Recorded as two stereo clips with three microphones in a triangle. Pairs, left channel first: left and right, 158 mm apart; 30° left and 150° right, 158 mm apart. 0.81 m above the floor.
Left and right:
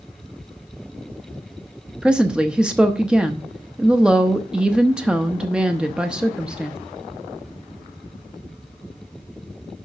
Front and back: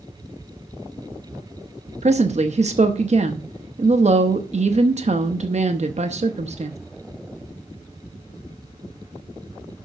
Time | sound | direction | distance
2.0 | a woman speaking | 170° right | 0.7 m